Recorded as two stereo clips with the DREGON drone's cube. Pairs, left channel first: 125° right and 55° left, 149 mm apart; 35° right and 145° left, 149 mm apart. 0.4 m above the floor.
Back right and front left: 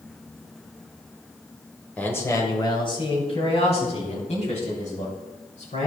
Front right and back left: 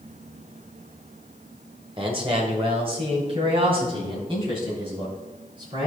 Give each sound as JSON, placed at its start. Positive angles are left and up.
{"t": 2.0, "sound": "a man speaking", "azimuth_deg": 160, "distance_m": 1.8}